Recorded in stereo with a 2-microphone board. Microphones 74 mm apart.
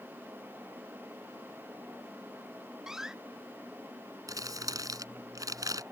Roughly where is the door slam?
Centre.